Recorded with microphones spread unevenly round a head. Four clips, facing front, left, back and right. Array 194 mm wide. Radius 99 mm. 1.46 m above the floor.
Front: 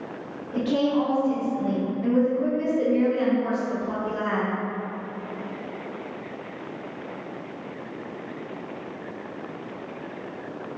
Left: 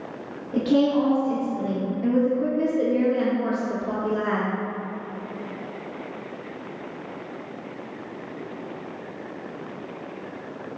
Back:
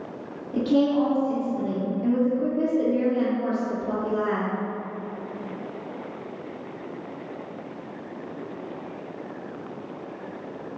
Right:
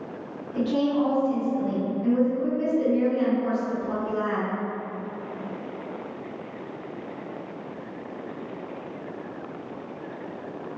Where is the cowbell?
I don't hear a cowbell.